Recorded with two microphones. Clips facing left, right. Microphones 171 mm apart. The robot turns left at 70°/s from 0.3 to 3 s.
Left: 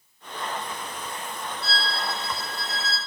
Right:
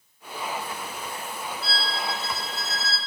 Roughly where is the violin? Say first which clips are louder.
Left 1 dB; ahead right.